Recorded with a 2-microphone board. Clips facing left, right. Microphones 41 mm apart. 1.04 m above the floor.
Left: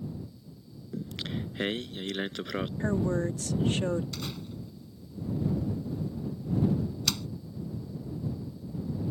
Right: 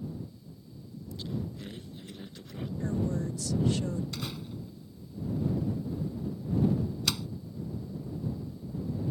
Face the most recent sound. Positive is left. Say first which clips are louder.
# even
turn(degrees=-10)  # may be behind; listen again after turning